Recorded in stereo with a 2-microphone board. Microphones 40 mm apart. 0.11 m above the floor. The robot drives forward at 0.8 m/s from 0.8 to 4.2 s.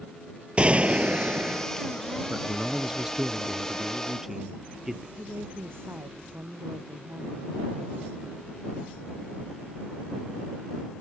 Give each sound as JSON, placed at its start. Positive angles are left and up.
{"t": 0.6, "sound": "a gunshot", "side_deg": -30}
{"t": 2.3, "sound": "a man speaking", "side_deg": -20}
{"t": 5.2, "sound": "a woman speaking", "side_deg": -75}